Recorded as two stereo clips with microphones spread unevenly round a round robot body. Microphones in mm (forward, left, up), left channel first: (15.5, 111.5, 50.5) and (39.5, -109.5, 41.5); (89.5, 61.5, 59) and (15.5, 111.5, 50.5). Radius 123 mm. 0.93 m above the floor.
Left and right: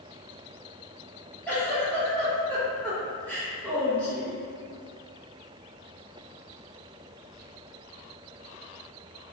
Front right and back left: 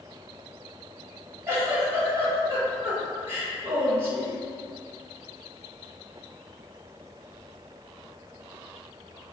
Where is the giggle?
Straight behind, 1.0 m.